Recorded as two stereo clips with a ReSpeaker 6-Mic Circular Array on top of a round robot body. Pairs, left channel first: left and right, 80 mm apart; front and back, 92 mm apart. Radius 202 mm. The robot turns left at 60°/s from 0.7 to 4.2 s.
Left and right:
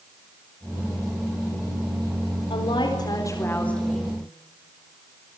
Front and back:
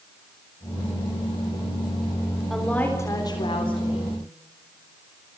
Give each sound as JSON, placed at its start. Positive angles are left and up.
{"t": 2.5, "sound": "a woman speaking", "azimuth_deg": 90, "distance_m": 4.0}